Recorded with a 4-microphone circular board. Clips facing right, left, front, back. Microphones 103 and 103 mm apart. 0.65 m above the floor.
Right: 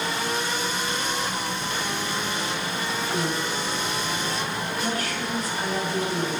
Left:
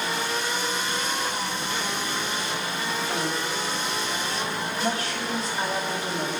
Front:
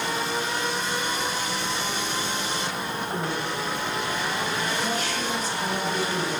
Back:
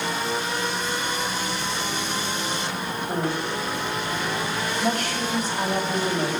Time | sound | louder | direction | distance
3.1 | a woman speaking | right 1 dB, back 5 dB | 150° left | 3.5 m